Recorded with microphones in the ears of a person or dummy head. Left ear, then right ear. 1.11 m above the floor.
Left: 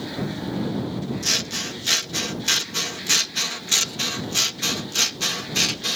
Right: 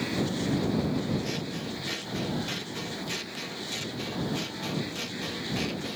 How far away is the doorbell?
No doorbell in this recording.